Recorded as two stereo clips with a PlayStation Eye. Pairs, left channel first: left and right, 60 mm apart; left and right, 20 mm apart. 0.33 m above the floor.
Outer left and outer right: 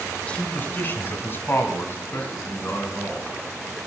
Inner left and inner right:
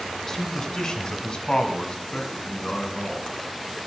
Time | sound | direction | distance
0.3 | a man speaking | 20° left (ahead or behind) | 1.1 m